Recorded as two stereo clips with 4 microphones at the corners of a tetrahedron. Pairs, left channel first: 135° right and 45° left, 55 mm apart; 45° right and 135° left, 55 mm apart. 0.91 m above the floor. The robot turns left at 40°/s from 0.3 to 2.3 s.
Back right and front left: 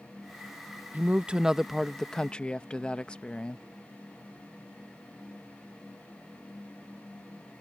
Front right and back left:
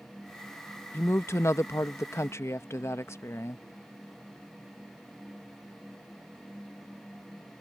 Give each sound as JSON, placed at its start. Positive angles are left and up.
{"t": 0.9, "sound": "a woman speaking", "azimuth_deg": -10}